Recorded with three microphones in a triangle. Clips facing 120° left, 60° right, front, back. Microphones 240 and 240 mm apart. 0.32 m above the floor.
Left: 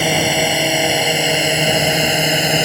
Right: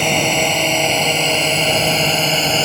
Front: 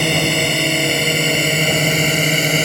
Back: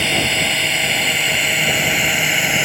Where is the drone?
40° left; by 2.7 s 45° left.